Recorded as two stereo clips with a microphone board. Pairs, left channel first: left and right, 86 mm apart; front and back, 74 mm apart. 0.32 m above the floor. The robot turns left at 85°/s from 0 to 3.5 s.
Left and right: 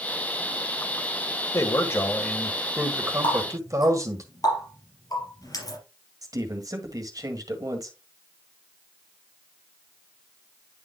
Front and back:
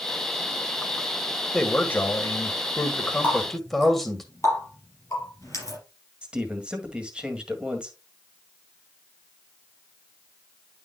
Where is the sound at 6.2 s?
110° right, 1.7 m.